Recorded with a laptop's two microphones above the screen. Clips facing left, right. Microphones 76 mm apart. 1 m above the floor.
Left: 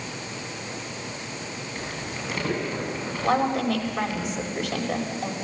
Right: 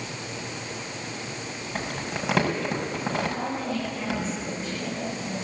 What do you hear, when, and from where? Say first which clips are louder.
1.8 s crumpling: right 5 dB; 85° right, 6 m
3.2 s a woman speaking: left 6 dB; 65° left (ahead or behind), 5.5 m